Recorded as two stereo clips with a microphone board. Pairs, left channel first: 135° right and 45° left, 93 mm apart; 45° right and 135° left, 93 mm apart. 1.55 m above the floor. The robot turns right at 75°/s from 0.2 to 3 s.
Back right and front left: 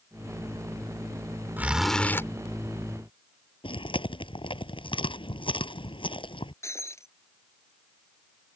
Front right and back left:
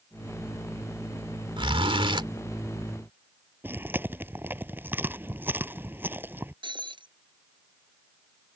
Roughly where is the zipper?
Left.